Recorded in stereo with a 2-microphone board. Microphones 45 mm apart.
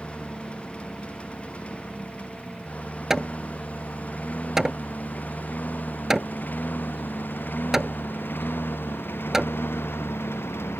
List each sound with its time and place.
0.0 s a lawn mower: 25° left (ahead or behind); by 10.8 s 65° left (ahead or behind)
3.1 s hammering: 10° right (ahead or behind)